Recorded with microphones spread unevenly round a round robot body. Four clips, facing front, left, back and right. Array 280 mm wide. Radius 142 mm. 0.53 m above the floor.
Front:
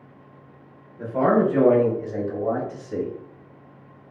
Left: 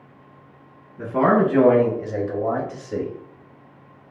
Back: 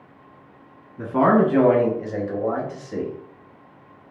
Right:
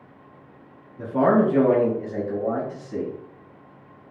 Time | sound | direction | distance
1.0 | a man speaking | 170° left | 1.0 m